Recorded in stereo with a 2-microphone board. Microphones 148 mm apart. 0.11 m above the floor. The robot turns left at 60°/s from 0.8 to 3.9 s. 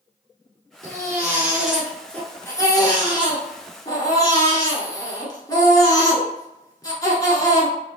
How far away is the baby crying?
About 1.3 m.